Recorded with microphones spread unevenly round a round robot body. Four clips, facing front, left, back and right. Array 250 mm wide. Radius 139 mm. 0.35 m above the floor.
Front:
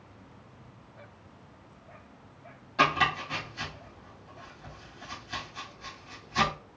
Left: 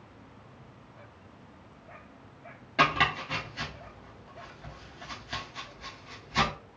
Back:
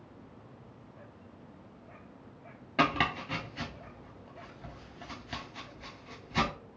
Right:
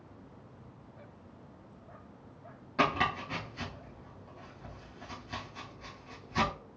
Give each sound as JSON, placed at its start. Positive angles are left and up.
{"t": 2.8, "sound": "chopping", "azimuth_deg": 175, "distance_m": 1.0}